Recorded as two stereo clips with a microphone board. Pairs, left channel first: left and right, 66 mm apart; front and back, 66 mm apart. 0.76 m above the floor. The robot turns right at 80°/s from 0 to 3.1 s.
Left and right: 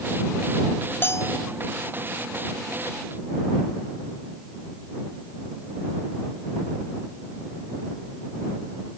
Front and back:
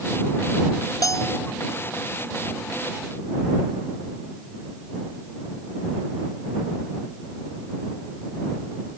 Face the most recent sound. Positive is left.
turn(degrees=-160)